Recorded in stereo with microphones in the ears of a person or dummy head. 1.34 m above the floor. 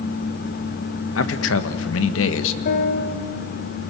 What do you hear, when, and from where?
1.1 s a man speaking: 80° left, 1.4 m
2.6 s a piano: 60° left (ahead or behind), 2 m